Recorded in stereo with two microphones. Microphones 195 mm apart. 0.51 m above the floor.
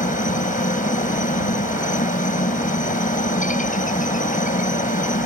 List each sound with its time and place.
0.0 s a helicopter: 40° left (ahead or behind)